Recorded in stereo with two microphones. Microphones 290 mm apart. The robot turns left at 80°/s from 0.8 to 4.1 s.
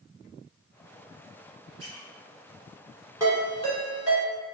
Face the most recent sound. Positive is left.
turn(degrees=45)  # may be behind; listen again after turning